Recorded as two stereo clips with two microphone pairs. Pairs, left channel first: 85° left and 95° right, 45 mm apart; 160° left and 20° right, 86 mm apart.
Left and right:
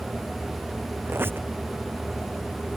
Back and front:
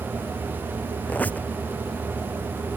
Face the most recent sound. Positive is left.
turn(degrees=-130)